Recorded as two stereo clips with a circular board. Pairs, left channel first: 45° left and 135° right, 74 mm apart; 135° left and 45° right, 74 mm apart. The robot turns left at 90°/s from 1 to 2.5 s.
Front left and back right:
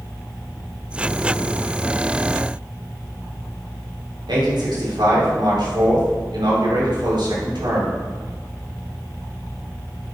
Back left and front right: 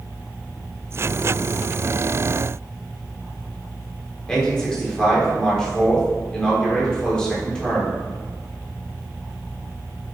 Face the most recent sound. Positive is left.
turn(degrees=-145)